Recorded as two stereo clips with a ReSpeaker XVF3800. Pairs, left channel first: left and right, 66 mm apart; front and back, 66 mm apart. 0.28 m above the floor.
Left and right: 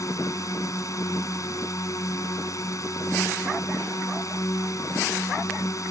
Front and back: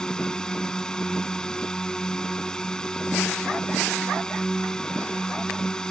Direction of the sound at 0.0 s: 75° left.